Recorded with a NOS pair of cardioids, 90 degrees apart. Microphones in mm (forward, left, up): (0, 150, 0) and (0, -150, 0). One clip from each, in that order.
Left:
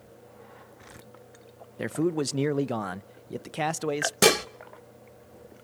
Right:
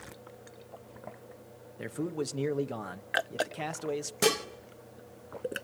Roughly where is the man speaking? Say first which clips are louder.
Left 7 dB; ahead left.